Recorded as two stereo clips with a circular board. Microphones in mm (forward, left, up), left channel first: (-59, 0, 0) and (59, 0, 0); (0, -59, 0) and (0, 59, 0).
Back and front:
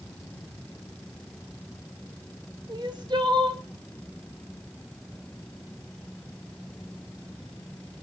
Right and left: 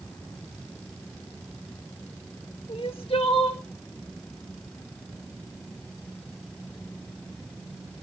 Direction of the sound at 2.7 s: 50° right.